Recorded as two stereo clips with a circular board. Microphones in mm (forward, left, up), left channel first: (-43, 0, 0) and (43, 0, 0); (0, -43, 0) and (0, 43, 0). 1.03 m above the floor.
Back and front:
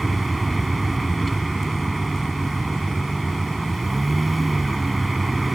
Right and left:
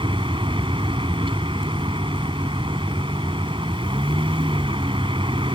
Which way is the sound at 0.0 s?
90° left.